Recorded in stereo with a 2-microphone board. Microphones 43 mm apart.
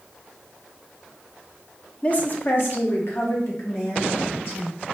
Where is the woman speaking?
30° left (ahead or behind), 0.5 m; by 4.8 s 80° left, 2 m.